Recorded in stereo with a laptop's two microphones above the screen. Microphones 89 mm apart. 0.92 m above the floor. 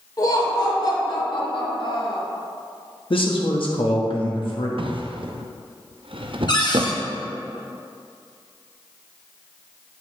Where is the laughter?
45° left (ahead or behind), 3 m; by 2.2 s 70° left (ahead or behind), 1.8 m.